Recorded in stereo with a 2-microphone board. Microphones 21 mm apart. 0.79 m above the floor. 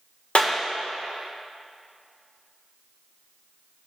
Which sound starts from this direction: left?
A clap, at 0.3 s.